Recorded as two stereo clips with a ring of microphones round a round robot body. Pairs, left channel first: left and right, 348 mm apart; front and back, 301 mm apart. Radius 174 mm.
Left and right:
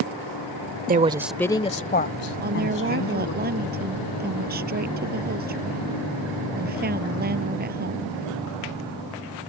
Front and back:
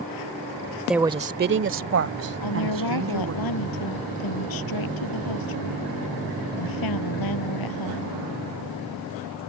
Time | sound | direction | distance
0.9 | a woman speaking | 95° right | ?
2.4 | a woman speaking | 25° right | ?